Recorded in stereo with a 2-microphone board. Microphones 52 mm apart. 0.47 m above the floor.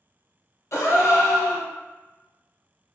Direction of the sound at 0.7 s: 60° left (ahead or behind).